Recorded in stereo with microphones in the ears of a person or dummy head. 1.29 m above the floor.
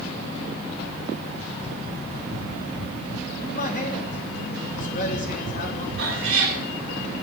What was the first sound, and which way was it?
A man speaking, 45° left (ahead or behind).